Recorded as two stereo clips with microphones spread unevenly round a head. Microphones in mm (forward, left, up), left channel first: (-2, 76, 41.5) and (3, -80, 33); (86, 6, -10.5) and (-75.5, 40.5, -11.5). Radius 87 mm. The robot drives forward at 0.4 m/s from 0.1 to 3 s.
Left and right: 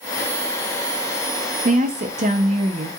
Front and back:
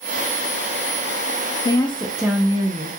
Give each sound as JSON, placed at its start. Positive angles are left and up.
{"t": 1.6, "sound": "a woman speaking", "azimuth_deg": -75, "distance_m": 0.5}